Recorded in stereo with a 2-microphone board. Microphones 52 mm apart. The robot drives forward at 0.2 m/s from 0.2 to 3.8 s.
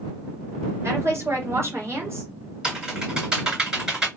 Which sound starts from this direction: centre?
Typing on a keyboard, at 2.6 s.